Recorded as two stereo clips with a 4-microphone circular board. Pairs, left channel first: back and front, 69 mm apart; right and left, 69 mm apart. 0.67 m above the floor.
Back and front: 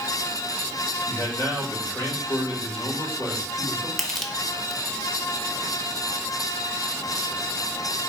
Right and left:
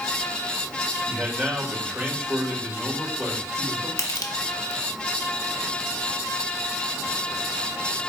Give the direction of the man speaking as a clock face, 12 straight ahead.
7 o'clock.